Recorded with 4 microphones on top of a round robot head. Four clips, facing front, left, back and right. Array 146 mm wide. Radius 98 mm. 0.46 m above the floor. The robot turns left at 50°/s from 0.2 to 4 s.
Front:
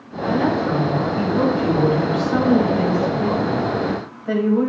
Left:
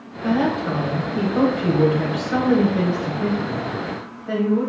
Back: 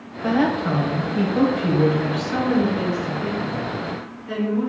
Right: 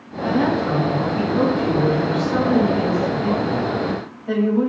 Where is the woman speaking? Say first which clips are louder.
Right 1 dB, front 1 dB; straight behind, 2.5 m; by 4.7 s 10° right, 2.5 m.